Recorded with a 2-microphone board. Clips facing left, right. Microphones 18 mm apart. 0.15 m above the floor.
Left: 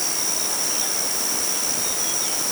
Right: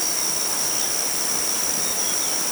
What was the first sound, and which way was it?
Only background noise.